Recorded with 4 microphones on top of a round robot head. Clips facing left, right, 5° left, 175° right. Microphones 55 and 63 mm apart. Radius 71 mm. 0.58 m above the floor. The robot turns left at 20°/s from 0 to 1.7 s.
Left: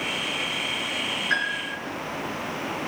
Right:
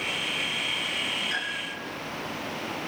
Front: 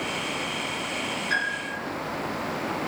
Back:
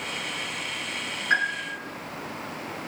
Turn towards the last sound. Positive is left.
turn(degrees=135)